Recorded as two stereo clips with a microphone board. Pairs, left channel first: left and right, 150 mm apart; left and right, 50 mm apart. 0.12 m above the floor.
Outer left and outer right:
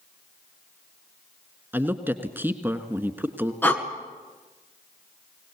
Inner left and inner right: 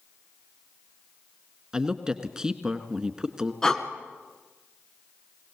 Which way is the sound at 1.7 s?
15° right (ahead or behind).